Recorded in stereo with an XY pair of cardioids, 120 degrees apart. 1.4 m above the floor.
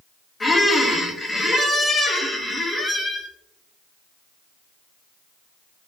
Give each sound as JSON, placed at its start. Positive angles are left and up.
{"t": 0.4, "sound": "a squeak", "azimuth_deg": 20, "distance_m": 0.7}